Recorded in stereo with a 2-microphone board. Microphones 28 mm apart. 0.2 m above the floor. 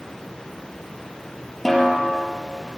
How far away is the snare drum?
About 3.5 m.